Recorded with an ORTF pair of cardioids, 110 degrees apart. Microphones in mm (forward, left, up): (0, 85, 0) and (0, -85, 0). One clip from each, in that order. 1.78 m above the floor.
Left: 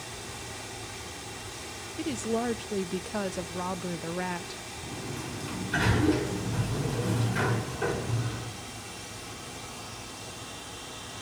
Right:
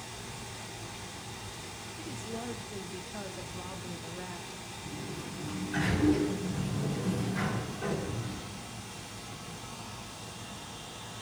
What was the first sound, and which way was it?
Running water, 25° left.